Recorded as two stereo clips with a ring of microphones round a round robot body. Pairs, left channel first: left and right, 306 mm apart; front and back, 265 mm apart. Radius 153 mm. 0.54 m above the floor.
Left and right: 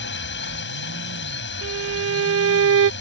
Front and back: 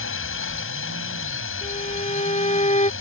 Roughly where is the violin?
Ahead right.